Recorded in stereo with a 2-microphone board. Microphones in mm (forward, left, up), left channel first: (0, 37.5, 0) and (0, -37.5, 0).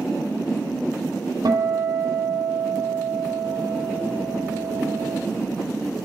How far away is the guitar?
About 1.7 m.